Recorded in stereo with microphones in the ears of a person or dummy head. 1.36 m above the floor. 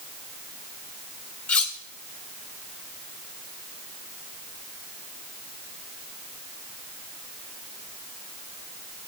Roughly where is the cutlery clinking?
Centre.